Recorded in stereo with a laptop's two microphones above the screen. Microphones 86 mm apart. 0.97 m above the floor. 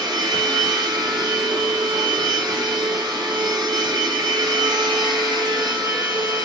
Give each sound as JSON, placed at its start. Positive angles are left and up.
{"t": 0.0, "sound": "a machine running", "side_deg": -60, "distance_m": 1.5}